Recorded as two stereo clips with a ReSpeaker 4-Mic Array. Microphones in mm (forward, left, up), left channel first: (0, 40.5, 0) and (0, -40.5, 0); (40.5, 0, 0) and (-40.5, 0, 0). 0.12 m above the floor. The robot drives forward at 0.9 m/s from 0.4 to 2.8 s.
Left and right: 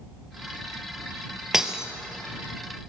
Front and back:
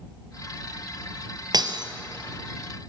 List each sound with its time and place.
1.5 s breaking glass: 170° right, 1.7 m; by 1.9 s 175° right, 2.0 m